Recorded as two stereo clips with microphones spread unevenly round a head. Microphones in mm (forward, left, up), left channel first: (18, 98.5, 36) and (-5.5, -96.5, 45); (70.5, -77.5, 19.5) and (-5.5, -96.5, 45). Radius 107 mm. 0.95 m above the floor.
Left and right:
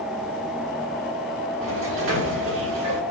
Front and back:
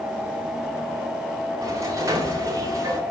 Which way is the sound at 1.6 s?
120° right.